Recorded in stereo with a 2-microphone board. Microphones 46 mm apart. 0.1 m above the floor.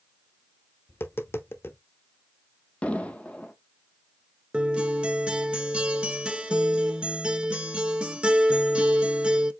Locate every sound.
0.9 s tapping: 60° left (ahead or behind), 0.9 m
2.8 s an explosion: 30° left (ahead or behind), 0.8 m
4.5 s a guitar: 25° right (ahead or behind), 0.5 m